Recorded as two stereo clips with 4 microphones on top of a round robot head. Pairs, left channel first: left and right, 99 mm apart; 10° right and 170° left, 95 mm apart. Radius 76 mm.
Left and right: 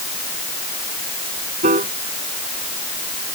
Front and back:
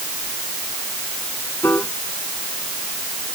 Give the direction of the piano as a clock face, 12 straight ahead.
3 o'clock.